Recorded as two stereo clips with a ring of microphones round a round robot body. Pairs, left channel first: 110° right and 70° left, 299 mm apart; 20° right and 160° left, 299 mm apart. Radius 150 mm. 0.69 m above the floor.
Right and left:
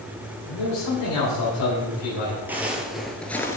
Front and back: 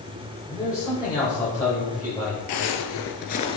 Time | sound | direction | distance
0.5 | a man speaking | 100° right | 2.5 m
2.5 | footsteps | 15° right | 1.0 m